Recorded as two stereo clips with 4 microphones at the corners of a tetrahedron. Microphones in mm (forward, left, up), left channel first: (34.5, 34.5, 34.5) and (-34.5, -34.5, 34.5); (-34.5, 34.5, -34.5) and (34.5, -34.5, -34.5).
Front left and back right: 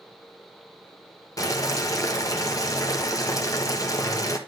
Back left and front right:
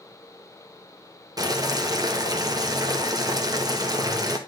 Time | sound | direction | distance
1.4 | boiling | 5° right | 1.4 m